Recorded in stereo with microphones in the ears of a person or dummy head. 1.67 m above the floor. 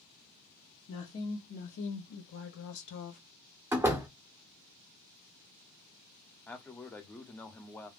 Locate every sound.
0.9 s a woman speaking: 40° left (ahead or behind), 1.2 m; by 3.2 s 50° left (ahead or behind), 0.8 m
3.7 s a door slam: 15° right (ahead or behind), 0.6 m
6.5 s a man speaking: 10° left (ahead or behind), 0.5 m